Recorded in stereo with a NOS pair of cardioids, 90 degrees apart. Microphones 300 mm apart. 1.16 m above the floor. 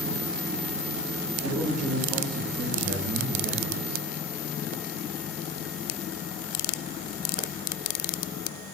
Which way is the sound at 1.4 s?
55° right.